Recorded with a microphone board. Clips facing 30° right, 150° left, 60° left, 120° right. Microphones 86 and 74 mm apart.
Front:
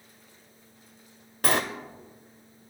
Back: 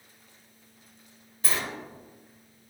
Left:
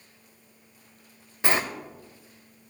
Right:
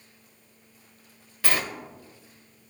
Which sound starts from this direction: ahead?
A sliding door, at 1.4 s.